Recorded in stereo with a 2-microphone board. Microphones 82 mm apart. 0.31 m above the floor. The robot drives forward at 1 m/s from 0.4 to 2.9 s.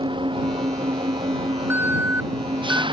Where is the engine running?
85° right; by 2.9 s 80° right.